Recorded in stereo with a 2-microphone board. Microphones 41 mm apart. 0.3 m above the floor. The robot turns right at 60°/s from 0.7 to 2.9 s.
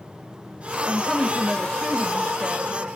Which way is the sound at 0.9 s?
15° left (ahead or behind).